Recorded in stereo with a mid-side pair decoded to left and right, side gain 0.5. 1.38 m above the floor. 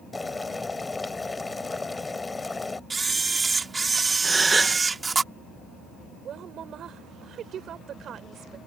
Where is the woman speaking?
55° right.